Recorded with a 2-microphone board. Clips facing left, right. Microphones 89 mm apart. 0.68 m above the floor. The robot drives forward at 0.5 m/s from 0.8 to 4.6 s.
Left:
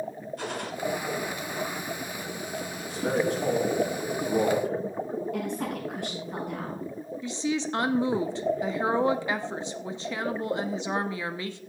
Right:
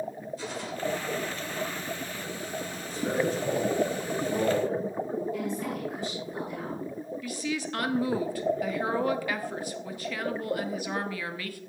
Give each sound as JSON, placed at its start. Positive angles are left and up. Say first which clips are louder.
{"t": 0.4, "sound": "a gunshot", "louder": "left 2 dB", "side_deg": 60, "distance_m": 1.6}
{"t": 2.8, "sound": "a man speaking", "louder": "left 2 dB", "side_deg": 70, "distance_m": 7.0}
{"t": 5.3, "sound": "a woman speaking", "louder": "left 1 dB", "side_deg": 65, "distance_m": 7.0}
{"t": 7.2, "sound": "a woman speaking", "louder": "left 5 dB", "side_deg": 25, "distance_m": 0.9}